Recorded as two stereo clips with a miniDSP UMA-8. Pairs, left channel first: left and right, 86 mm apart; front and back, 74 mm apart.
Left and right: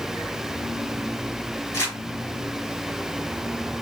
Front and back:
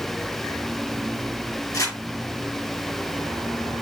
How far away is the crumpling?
About 2.5 m.